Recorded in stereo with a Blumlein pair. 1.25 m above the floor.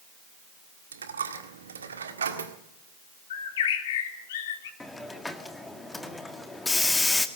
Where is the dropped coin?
70° right, 1.7 m.